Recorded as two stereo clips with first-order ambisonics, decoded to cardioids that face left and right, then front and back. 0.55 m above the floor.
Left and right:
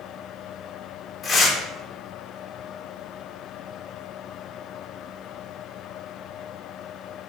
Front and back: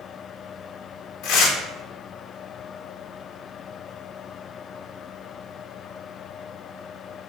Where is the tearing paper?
25° left, 0.7 m.